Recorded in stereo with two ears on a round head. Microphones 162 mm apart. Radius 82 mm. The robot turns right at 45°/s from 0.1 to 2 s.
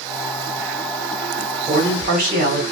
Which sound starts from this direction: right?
A man speaking, at 1.7 s.